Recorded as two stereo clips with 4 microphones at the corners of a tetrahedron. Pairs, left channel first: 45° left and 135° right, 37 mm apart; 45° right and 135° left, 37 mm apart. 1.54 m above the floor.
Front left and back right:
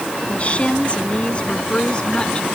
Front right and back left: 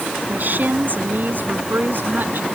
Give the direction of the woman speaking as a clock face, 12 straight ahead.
9 o'clock.